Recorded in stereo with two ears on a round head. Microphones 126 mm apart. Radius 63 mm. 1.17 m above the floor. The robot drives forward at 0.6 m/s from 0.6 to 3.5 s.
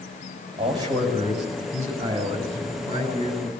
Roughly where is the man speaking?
Right.